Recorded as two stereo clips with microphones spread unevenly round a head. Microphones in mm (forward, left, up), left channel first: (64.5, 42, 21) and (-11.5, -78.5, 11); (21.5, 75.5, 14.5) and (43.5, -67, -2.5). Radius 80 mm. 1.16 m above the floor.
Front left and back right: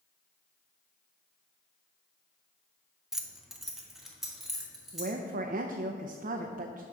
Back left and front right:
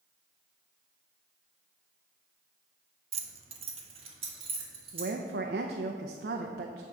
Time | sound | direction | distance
3.1 | keys jangling | 35° right | 0.8 m
4.9 | a woman speaking | 95° right | 0.6 m